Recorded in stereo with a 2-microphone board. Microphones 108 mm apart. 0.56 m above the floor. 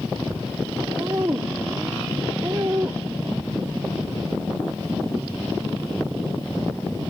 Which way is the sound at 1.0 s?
35° right (ahead or behind).